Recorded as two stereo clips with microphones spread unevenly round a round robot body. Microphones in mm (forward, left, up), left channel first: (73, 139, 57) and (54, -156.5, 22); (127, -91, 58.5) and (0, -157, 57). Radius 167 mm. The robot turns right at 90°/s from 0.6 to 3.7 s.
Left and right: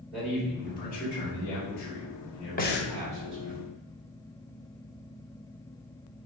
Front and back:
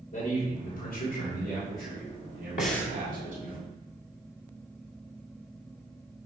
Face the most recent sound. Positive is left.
turn(degrees=140)